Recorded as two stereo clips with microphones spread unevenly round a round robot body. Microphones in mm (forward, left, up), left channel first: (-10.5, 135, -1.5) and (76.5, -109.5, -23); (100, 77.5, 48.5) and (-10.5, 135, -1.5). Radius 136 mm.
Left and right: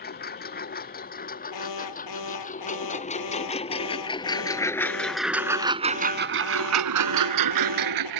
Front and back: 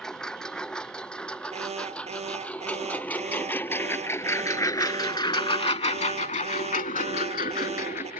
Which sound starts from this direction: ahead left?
A lawn mower, at 0.0 s.